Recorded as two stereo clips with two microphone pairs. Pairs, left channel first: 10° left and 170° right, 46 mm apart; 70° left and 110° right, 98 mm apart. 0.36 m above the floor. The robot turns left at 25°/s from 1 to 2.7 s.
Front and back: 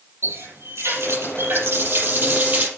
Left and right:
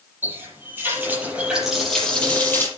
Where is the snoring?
No snoring in this recording.